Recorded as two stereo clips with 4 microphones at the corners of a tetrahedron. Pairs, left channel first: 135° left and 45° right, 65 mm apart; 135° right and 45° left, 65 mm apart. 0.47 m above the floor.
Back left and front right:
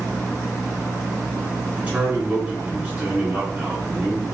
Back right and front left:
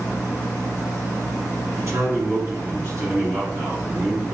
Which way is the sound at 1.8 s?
20° left.